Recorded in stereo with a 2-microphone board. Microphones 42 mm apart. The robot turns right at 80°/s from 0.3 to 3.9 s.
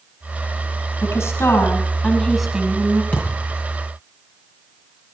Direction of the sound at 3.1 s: 40° left (ahead or behind).